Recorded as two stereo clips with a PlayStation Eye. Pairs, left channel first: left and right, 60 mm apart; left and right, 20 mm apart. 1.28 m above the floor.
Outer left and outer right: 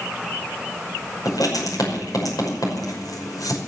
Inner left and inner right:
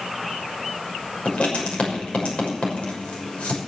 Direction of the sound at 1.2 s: 80° left.